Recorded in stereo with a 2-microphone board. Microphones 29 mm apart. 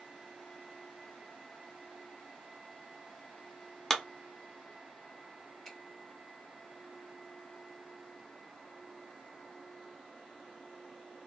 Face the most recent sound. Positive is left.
turn(degrees=10)  # may be behind; listen again after turning